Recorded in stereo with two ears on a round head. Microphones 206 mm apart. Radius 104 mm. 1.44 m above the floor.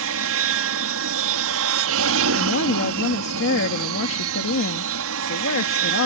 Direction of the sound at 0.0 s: 65° right (ahead or behind).